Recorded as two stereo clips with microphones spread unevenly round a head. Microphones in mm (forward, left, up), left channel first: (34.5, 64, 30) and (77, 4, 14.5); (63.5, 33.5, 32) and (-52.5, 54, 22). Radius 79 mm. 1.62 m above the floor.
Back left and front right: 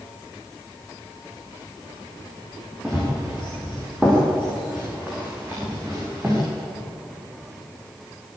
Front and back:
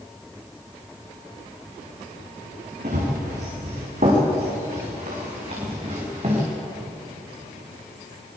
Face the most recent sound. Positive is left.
turn(degrees=-135)